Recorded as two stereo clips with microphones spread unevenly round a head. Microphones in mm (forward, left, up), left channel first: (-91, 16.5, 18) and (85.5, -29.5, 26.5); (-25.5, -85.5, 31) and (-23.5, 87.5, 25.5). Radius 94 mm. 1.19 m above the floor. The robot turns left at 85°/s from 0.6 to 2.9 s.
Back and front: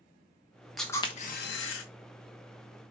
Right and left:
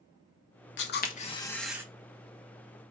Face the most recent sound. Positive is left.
turn(degrees=75)